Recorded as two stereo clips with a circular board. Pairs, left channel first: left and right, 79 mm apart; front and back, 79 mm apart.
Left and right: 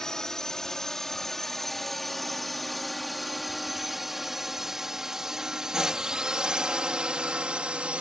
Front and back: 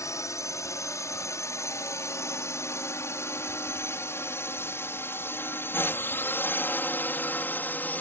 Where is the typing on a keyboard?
No typing on a keyboard in this recording.